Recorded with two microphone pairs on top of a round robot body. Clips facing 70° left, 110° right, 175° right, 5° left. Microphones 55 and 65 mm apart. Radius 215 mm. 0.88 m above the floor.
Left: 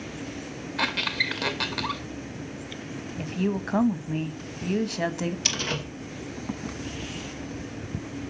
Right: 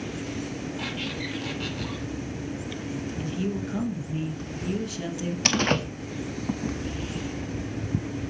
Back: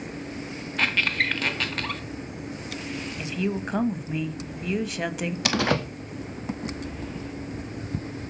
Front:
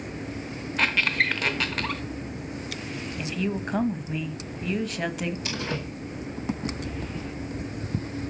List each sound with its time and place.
0.8 s a squeak: 90° left, 0.7 m
3.2 s a woman speaking: 105° left, 1.4 m
5.5 s a door slam: 155° right, 1.0 m